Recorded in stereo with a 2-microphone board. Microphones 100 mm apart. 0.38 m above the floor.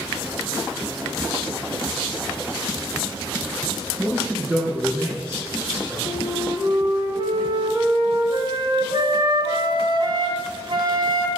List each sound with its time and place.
4.0 s a man speaking: 25° right (ahead or behind), 5 m
6.0 s a flute: 55° right (ahead or behind), 2 m